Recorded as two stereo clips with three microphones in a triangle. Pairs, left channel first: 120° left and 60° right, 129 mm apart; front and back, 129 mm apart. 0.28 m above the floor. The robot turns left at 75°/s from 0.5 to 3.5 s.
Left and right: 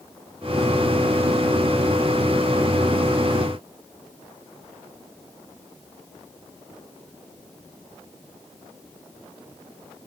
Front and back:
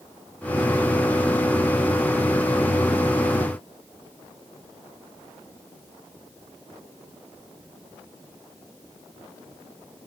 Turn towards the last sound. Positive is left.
No sound to turn to.